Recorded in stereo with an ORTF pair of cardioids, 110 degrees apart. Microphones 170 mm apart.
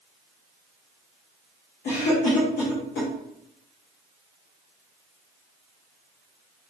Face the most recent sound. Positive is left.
turn(degrees=60)